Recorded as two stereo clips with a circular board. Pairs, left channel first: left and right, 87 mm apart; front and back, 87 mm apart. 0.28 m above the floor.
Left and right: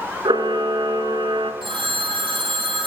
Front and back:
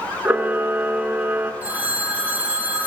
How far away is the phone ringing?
About 6.5 m.